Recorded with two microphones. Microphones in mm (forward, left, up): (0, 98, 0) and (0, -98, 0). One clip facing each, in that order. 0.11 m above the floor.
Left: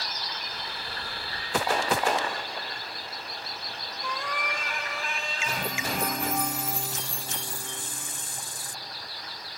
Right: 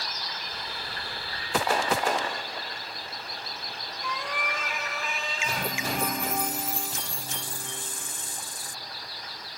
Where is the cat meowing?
5° right (ahead or behind), 3.5 m.